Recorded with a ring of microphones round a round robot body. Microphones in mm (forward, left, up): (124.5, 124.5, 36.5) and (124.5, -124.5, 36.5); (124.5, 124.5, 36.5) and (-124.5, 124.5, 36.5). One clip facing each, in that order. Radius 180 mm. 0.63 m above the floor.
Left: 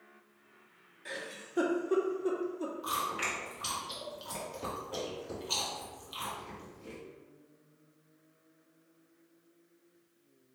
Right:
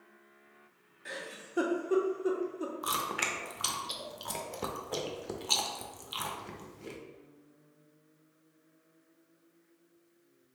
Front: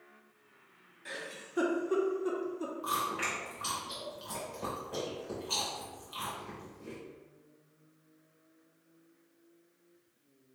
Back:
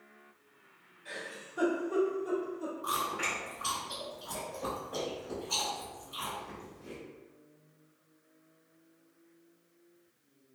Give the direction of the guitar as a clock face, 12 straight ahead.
No guitar in this recording.